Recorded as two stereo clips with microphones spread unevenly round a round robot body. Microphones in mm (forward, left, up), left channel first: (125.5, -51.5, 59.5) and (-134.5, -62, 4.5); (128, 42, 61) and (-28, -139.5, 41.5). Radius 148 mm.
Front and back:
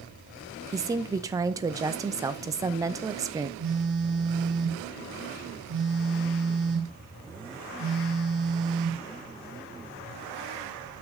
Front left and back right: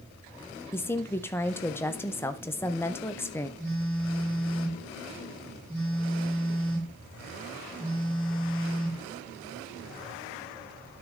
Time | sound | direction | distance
0.7 | a woman speaking | 130° left | 0.6 m
3.6 | a phone buzzing | 135° left | 5.5 m